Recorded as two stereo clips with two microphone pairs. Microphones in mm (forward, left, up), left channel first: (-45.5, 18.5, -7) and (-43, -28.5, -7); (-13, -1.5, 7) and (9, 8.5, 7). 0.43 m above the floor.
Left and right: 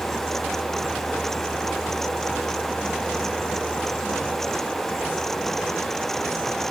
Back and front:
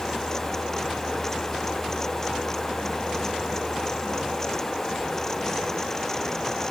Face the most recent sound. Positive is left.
No sound to turn to.